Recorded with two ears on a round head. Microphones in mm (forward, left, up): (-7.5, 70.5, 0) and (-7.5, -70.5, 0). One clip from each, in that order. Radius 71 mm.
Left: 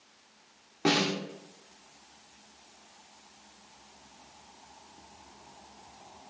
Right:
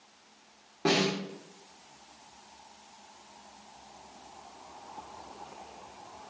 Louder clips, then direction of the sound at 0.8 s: Even; 45° left (ahead or behind).